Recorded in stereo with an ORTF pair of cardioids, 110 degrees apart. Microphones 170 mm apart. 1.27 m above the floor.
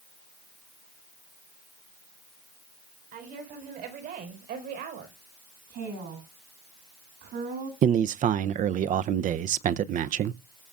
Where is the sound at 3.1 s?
65° right, 4.5 m; by 5.2 s 75° right, 5 m.